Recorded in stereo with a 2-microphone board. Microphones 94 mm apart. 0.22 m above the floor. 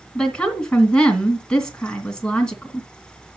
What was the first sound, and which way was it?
A woman speaking, 10° left (ahead or behind).